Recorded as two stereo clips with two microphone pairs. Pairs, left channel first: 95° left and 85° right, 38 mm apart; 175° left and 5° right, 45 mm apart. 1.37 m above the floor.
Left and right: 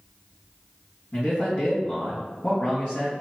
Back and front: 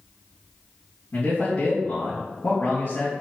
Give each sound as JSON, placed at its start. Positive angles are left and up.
{"t": 1.1, "sound": "a man speaking", "azimuth_deg": 135, "distance_m": 1.7}